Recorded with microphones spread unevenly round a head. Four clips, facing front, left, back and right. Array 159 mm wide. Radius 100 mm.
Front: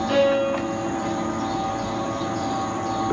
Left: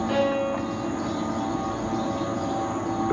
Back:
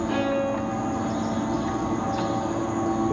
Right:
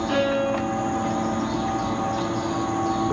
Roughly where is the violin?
Ahead.